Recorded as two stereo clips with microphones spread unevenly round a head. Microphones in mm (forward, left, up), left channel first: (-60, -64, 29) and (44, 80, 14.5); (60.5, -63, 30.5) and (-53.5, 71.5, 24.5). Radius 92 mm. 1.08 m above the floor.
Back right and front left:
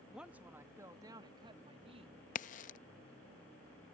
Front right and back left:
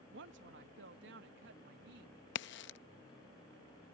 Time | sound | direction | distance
0.1 | a woman speaking | 140° left | ?
2.4 | a crack | 75° right | ?